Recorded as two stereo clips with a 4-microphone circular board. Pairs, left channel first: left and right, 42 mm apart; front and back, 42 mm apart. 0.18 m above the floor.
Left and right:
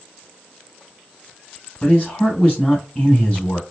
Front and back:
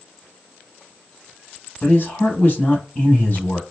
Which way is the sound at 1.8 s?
40° left.